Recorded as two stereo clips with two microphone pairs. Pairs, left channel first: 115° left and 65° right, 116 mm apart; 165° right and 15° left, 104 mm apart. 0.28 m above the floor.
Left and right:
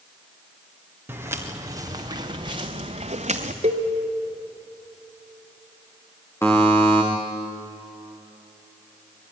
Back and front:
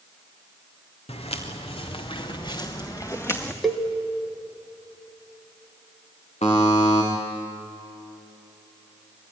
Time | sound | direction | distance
1.1 | footsteps | 140° right | 3 m
3.6 | a cowbell | 75° right | 1.2 m
6.4 | a buzzer | 175° right | 4.5 m